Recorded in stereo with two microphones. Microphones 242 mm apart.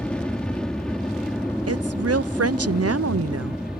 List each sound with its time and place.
0.0 s an aircraft: 5° left (ahead or behind); by 3.8 s centre (ahead or behind)
1.7 s a woman speaking: 80° right